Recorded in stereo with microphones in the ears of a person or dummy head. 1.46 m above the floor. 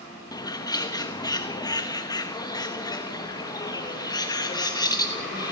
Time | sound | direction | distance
0.3 | a bird | 20° left (ahead or behind) | 1.3 m